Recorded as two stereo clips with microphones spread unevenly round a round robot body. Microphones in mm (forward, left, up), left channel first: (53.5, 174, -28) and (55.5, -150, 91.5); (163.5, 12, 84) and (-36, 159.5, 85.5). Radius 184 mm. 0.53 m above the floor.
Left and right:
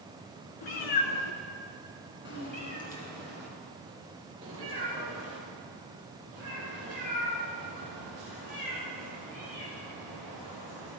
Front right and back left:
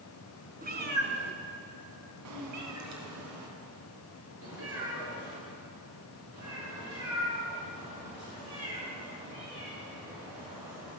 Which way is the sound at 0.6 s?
90° left.